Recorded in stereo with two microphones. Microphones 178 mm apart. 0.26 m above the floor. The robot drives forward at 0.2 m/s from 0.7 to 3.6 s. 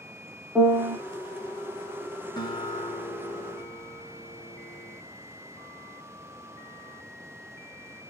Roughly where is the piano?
Centre.